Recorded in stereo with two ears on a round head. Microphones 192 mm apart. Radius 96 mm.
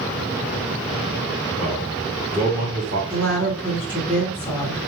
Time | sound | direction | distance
1.6 | a man speaking | 10° left (ahead or behind) | 2 m
3.1 | a woman speaking | 10° left (ahead or behind) | 2.5 m